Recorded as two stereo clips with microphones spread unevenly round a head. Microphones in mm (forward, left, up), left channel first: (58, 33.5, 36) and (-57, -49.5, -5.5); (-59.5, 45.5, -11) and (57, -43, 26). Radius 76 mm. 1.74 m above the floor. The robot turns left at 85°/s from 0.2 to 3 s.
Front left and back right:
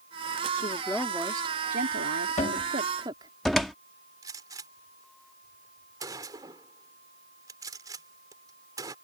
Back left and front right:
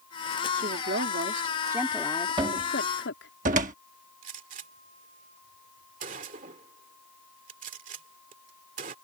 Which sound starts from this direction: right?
A gunshot, at 4.2 s.